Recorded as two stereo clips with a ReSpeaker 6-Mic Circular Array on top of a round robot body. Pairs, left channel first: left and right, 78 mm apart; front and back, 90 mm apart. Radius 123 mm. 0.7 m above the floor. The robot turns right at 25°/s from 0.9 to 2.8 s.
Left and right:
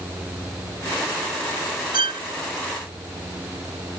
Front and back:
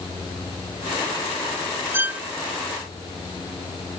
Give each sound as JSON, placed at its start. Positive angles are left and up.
{"t": 1.9, "sound": "a violin", "azimuth_deg": -115}